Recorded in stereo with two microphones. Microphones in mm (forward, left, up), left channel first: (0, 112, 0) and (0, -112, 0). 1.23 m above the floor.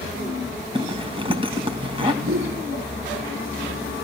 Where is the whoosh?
65° right (ahead or behind), 2.5 m.